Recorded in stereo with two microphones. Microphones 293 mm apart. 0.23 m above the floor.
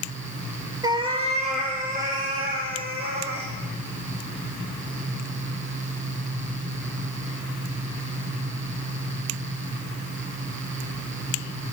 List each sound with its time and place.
0.8 s a cat meowing: 15° right (ahead or behind), 1.0 m; by 3.5 s 35° right (ahead or behind), 3.5 m